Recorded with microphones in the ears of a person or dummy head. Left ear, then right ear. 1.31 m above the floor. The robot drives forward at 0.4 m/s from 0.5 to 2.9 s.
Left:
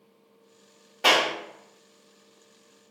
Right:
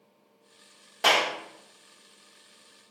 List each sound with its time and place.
1.0 s a clap: 45° right (ahead or behind), 1.4 m; by 1.3 s 40° right (ahead or behind), 1.5 m